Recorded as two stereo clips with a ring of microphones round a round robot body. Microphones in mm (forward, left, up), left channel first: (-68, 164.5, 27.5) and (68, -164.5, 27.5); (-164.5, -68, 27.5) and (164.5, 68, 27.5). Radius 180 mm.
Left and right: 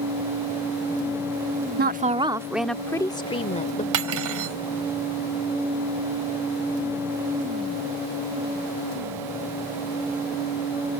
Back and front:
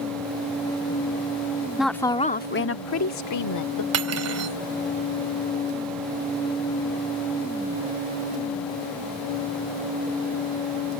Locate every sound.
1.8 s a woman speaking: 65° right; by 3.8 s straight behind
3.9 s cutlery clinking: 25° right